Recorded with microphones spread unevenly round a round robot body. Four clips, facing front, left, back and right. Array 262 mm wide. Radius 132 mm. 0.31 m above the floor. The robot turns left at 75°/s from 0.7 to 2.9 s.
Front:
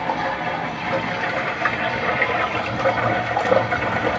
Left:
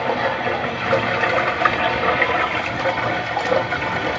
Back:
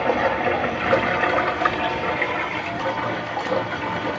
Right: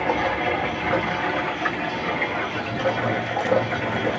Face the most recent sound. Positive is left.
turn(degrees=5)